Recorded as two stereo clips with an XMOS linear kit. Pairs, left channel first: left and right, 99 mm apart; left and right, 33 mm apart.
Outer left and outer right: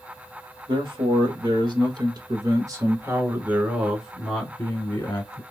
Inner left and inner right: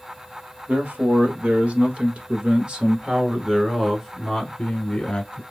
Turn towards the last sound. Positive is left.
turn(degrees=30)  # may be behind; listen again after turning